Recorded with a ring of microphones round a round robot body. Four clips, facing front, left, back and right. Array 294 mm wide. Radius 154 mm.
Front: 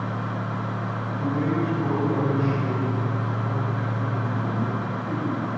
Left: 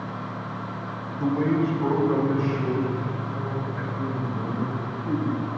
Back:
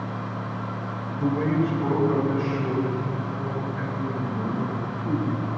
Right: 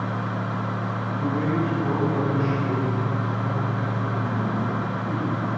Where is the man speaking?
90° left, 4.5 m; by 5.5 s 105° left, 7.5 m.